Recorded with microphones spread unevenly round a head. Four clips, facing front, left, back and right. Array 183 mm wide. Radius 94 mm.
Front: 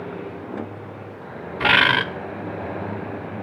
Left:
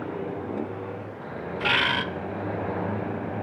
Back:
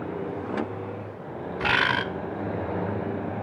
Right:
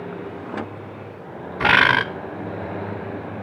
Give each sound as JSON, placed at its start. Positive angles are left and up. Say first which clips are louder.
{"t": 1.6, "sound": "a bird", "louder": "right 9 dB, front 6 dB", "azimuth_deg": -60, "distance_m": 0.8}